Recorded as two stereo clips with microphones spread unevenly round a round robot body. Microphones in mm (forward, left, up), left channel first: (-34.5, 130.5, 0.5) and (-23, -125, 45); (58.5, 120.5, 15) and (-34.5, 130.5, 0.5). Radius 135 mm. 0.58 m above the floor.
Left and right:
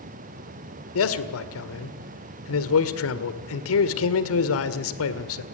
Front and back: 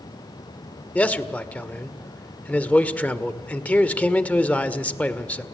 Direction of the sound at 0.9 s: 70° left.